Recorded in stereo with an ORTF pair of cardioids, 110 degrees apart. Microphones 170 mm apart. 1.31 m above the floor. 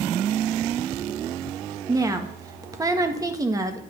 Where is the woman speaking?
20° right, 1.6 m.